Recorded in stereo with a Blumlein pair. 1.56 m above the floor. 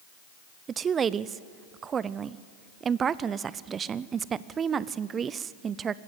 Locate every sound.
0.7 s a woman speaking: 20° right, 0.6 m